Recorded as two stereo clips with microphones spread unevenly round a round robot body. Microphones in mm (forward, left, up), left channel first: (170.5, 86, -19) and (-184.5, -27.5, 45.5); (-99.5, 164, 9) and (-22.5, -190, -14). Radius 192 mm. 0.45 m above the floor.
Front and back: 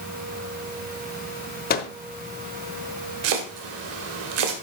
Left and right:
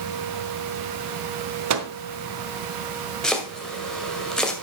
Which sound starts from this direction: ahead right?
A microwave, at 1.7 s.